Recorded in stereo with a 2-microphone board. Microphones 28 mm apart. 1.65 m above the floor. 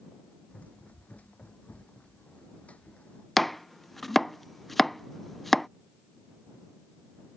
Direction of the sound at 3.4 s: 10° left (ahead or behind).